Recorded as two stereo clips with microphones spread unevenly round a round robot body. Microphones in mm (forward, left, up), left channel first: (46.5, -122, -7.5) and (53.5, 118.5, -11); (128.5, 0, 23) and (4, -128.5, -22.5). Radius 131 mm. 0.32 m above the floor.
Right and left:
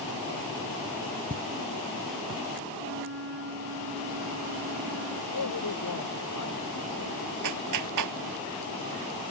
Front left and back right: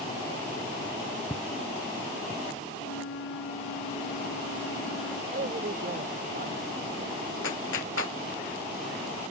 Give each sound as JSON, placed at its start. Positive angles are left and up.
{"t": 1.3, "sound": "footsteps", "azimuth_deg": 155}
{"t": 2.8, "sound": "a flute", "azimuth_deg": 55}
{"t": 5.3, "sound": "a man speaking", "azimuth_deg": -95}
{"t": 7.4, "sound": "a clap", "azimuth_deg": 95}